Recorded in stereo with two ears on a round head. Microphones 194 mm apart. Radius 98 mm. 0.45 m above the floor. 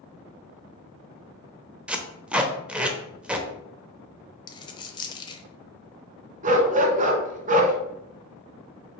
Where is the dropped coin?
20° left (ahead or behind), 0.7 m.